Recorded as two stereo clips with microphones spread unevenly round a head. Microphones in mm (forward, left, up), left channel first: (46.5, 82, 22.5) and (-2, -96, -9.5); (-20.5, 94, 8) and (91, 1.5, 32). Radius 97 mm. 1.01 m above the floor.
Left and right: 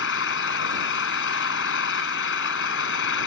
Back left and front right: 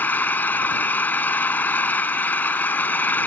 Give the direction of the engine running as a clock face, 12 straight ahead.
10 o'clock.